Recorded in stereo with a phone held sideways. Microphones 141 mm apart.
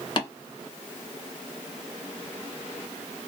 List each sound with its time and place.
0.2 s tapping: 35° left (ahead or behind), 1.6 m